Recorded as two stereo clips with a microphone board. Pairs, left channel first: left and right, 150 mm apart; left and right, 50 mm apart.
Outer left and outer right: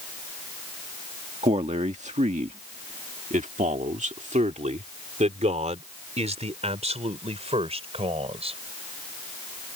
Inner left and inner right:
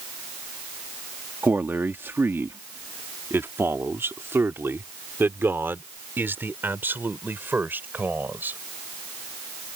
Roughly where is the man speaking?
Right.